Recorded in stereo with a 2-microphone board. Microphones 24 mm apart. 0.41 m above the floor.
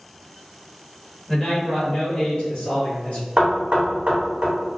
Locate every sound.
1.3 s a man speaking: 25° left (ahead or behind), 1.3 m; by 3.2 s 60° left (ahead or behind), 1.6 m
3.4 s knocking: 45° right (ahead or behind), 0.8 m